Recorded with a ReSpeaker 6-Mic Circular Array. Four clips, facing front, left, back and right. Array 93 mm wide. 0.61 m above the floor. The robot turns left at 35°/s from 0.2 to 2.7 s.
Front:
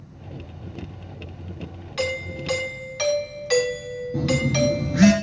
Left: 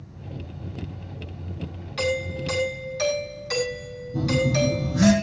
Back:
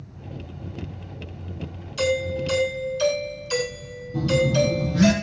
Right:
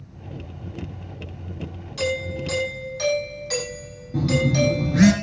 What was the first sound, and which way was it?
A doorbell, 30° left.